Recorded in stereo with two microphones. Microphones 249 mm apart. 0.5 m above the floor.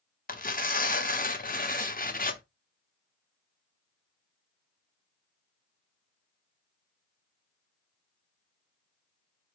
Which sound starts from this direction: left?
Tearing paper, at 0.3 s.